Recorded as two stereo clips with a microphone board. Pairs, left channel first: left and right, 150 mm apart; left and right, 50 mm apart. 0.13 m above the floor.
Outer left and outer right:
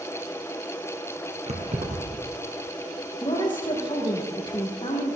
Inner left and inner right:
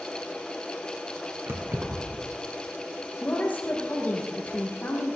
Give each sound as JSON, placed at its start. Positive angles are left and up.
{"t": 1.5, "sound": "keys jangling", "side_deg": -50, "distance_m": 2.5}
{"t": 3.2, "sound": "a woman speaking", "side_deg": 35, "distance_m": 5.0}